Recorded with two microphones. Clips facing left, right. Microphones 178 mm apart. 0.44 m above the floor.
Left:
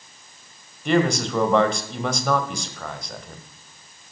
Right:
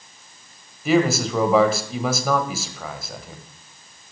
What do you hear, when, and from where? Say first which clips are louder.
0.8 s a man speaking: right 2 dB; 5° right (ahead or behind), 1.7 m